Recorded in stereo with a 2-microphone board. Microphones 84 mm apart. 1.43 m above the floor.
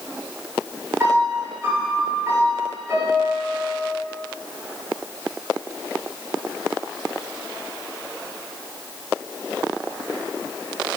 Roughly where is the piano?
Right.